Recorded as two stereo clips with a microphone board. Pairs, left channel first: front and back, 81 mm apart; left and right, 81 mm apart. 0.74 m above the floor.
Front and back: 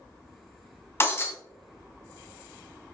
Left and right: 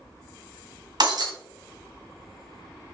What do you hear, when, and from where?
1.0 s breaking glass: 60° right, 2 m